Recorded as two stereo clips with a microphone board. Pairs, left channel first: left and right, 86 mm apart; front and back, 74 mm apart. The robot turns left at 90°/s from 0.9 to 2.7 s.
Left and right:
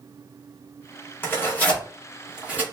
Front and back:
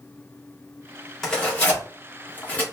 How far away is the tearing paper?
About 0.9 m.